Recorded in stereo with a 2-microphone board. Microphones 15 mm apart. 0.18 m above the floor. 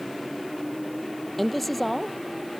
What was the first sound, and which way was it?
A man speaking, centre (ahead or behind).